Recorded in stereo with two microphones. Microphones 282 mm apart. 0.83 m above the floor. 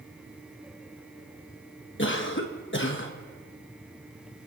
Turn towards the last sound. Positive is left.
turn(degrees=45)  # may be behind; listen again after turning